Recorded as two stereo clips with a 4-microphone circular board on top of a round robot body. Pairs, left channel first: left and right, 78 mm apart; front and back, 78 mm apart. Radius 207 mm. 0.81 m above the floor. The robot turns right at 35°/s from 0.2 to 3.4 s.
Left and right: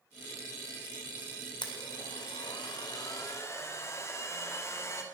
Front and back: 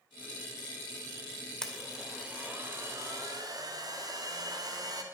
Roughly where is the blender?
Left.